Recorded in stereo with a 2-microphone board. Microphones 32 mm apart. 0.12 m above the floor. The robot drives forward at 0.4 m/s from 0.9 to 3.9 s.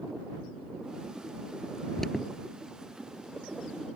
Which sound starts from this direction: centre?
An alarm, at 2.0 s.